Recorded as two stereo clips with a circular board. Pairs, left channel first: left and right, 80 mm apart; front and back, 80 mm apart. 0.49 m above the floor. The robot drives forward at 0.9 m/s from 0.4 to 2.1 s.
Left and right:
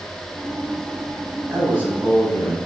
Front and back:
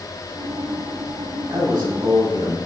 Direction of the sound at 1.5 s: 155° right.